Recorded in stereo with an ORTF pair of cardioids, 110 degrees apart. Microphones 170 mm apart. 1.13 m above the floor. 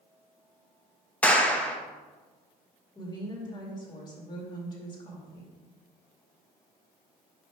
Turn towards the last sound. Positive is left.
turn(degrees=25)